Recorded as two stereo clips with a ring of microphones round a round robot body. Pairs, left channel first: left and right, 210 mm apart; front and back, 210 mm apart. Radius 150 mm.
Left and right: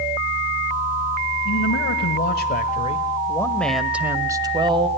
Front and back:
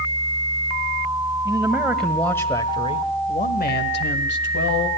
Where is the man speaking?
100° left, 1.8 m; by 4.9 s 25° right, 1.8 m.